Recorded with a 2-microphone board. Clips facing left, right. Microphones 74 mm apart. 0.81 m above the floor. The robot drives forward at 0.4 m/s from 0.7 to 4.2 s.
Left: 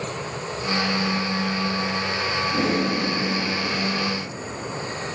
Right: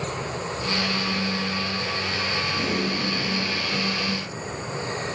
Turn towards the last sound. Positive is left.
turn(degrees=40)  # may be behind; listen again after turning